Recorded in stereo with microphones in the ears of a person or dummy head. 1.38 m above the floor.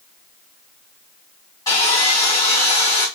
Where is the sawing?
20° left (ahead or behind), 2.5 m.